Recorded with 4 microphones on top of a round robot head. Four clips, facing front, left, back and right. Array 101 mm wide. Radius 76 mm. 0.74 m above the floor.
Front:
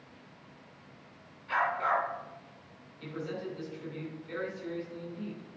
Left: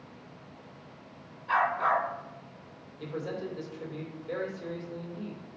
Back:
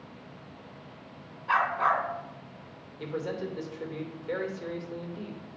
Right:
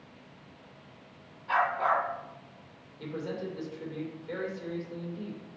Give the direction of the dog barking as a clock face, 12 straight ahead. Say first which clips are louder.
Left 1 dB, back 4 dB; 6 o'clock.